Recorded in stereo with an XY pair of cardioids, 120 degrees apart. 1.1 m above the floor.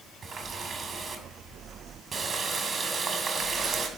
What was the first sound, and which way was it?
A running tap, 25° right.